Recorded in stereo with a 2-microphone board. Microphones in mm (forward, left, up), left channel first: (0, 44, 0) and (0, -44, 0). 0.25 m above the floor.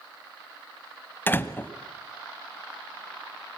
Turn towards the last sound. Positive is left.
turn(degrees=25)  # may be behind; listen again after turning